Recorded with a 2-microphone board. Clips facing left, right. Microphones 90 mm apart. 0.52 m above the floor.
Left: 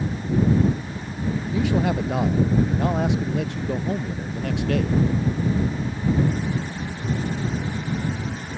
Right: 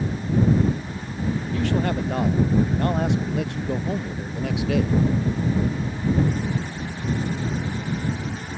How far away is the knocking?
No knocking in this recording.